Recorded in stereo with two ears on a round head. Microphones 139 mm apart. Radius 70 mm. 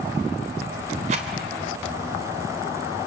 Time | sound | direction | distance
1.1 | a rattle | 45° right (ahead or behind) | 3 m